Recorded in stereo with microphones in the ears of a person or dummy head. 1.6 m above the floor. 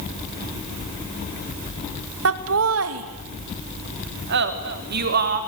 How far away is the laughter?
About 2.0 m.